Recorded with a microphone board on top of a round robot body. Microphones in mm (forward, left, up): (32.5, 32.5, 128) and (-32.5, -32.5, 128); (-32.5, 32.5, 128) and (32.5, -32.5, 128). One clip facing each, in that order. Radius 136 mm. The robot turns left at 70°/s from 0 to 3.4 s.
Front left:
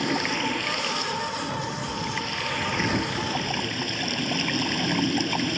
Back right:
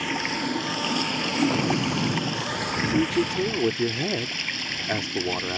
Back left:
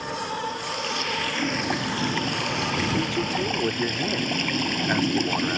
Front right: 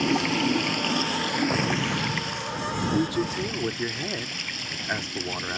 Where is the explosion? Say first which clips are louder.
Back right 6 dB, front right 1 dB; 85° right; by 3.7 s 145° left.